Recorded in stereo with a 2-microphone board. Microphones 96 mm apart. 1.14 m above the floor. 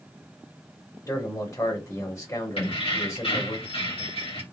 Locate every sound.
1.1 s a man speaking: 40° left (ahead or behind), 1.3 m
2.6 s keys jangling: 80° left, 1.6 m